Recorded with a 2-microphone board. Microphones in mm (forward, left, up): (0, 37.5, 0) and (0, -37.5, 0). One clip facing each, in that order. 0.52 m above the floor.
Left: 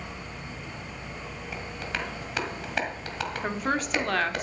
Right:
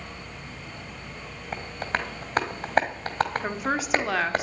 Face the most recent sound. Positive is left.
turn(degrees=-5)  # may be behind; listen again after turning